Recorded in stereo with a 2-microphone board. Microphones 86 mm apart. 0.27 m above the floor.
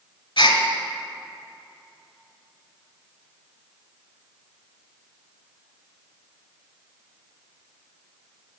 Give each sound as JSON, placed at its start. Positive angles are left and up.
{"t": 0.4, "sound": "a gasp", "side_deg": 75, "distance_m": 1.0}